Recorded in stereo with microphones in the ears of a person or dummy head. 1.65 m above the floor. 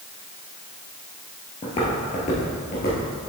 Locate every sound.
1.6 s footsteps: 25° left (ahead or behind), 1.8 m; by 3.1 s 45° left (ahead or behind), 2.5 m